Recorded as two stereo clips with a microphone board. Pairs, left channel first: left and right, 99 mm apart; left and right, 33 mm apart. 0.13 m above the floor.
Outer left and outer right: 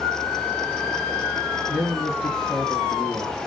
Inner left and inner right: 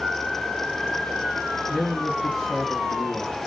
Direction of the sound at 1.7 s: 5° left (ahead or behind).